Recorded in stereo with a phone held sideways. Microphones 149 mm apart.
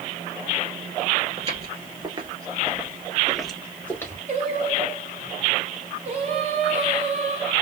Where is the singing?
45° right (ahead or behind), 1.6 m.